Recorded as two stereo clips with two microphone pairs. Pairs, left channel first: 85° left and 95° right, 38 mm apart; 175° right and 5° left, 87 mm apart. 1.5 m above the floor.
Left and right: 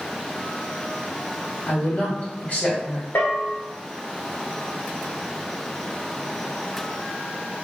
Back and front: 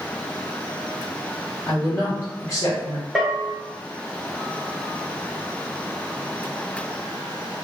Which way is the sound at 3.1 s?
95° left.